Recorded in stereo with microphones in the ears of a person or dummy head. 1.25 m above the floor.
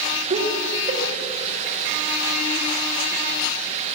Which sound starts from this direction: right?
Laughter, at 0.3 s.